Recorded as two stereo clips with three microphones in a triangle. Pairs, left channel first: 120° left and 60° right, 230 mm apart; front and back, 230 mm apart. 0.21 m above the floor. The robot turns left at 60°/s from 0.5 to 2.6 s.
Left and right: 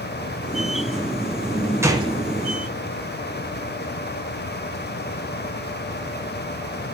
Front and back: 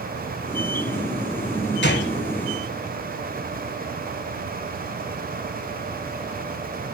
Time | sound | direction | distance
1.8 | a gunshot | 15° left | 1.5 m